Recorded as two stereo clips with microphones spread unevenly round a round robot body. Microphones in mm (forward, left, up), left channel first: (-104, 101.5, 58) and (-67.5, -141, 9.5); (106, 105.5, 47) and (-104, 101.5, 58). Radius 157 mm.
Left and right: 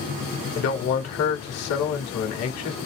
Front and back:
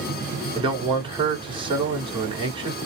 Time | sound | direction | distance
0.6 | a man speaking | 115° left | 1.4 m